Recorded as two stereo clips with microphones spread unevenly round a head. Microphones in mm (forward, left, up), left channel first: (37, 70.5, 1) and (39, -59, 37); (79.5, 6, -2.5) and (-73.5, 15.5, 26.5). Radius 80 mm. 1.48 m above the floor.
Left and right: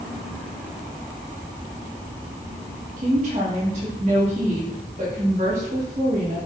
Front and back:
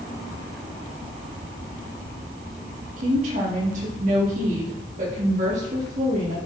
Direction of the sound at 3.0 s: 140° right.